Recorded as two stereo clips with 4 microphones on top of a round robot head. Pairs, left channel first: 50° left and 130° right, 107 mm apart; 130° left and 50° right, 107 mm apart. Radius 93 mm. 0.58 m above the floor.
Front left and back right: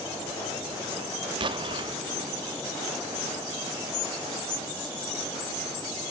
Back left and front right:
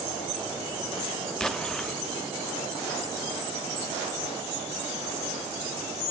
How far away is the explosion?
About 0.8 m.